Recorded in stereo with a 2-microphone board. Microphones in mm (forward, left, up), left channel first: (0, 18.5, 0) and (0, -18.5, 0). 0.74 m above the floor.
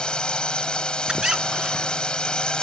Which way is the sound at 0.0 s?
25° left (ahead or behind).